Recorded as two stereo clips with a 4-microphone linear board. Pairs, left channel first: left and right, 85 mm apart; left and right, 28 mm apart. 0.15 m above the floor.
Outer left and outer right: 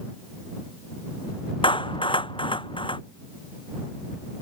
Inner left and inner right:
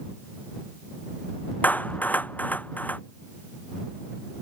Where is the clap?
75° left (ahead or behind).